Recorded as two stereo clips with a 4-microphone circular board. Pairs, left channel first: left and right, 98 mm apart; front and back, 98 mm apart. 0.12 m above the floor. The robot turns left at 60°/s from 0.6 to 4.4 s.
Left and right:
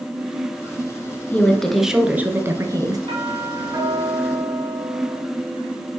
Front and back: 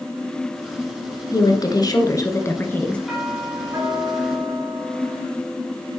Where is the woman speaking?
25° left, 1.5 m; by 3.0 s 75° right, 1.5 m.